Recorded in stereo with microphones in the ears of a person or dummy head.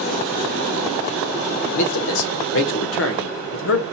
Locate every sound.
1.6 s a man speaking: 65° left (ahead or behind), 0.8 m